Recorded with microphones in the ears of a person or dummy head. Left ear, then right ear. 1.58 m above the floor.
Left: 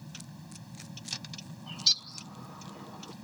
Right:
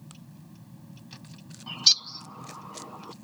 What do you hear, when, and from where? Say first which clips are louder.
0.0 s a vehicle: left 4 dB; 65° left (ahead or behind)
1.7 s a bird: right 5 dB; 20° right (ahead or behind)